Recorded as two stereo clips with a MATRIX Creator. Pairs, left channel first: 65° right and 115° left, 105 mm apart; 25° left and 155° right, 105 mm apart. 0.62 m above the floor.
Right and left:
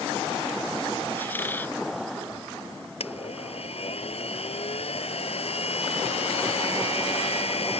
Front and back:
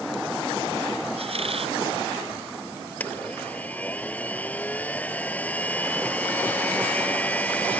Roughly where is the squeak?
Behind right.